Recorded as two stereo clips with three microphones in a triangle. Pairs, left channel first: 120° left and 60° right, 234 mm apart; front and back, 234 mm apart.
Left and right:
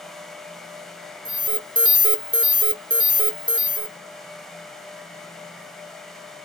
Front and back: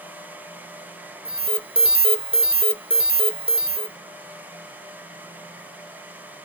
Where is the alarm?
120° right, 0.8 m.